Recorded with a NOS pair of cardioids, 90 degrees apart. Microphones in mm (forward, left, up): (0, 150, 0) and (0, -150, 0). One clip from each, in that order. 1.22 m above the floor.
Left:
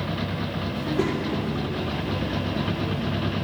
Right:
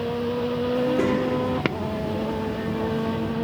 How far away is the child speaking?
About 2 m.